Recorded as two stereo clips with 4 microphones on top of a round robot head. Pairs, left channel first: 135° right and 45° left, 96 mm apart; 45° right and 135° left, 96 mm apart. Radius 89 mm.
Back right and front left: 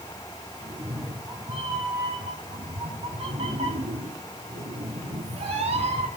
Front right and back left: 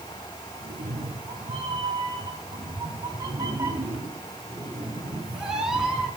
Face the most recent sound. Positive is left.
turn(degrees=45)